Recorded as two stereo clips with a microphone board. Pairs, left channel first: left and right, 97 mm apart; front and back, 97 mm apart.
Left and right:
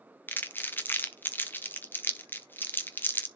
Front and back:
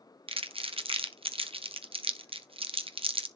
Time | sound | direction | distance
0.3 | crumpling | 160° left | 0.8 m